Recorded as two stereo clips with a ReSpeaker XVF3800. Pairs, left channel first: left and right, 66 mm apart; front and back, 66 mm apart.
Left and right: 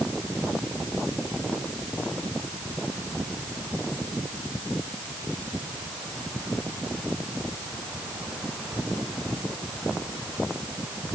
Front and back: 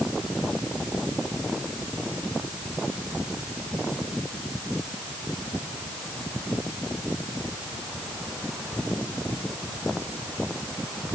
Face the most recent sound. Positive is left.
No sound to turn to.